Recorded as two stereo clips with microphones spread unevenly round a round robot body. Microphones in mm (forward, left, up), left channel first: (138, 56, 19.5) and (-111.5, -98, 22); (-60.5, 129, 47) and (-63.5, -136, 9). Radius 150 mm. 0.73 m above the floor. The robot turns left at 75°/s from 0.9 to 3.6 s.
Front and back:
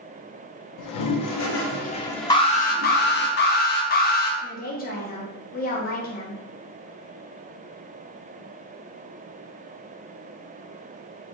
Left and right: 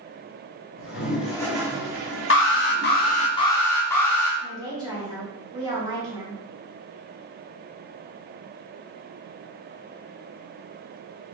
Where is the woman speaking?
25° right, 1.0 m.